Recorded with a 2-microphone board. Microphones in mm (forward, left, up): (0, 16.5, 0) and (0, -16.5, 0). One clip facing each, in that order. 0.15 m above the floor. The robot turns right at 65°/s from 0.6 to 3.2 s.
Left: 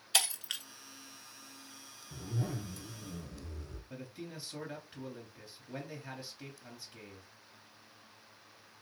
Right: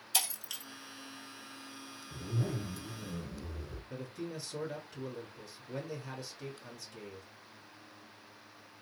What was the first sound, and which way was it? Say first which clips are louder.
Breaking glass: left 4 dB; 50° left (ahead or behind).